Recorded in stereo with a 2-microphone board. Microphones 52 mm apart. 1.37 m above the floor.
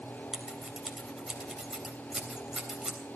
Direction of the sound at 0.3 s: 15° right (ahead or behind).